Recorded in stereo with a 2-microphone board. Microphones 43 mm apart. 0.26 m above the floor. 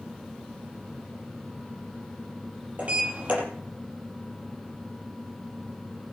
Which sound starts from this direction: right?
A sliding door, at 2.8 s.